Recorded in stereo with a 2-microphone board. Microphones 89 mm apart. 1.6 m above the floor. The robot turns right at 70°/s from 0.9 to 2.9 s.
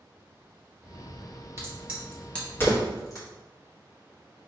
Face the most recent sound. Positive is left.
turn(degrees=40)  # may be behind; listen again after turning